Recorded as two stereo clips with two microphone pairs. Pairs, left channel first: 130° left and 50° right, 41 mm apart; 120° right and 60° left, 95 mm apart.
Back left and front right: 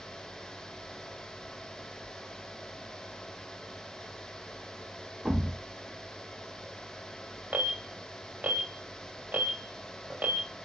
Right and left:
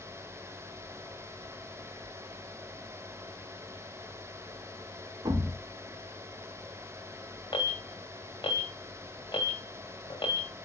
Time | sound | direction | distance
5.2 | a thud | 20° left | 1.0 m
7.5 | an alarm | 85° right | 2 m